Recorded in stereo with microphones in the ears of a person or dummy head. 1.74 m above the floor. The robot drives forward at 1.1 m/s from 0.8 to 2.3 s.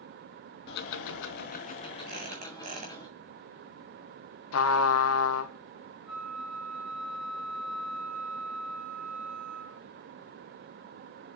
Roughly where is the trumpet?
Left.